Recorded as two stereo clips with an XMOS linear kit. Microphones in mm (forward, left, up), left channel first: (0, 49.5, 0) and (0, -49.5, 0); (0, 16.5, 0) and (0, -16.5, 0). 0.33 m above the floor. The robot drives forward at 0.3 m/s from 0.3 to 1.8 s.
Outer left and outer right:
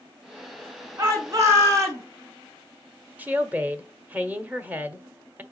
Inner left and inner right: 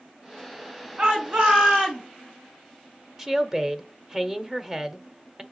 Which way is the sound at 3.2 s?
15° right (ahead or behind).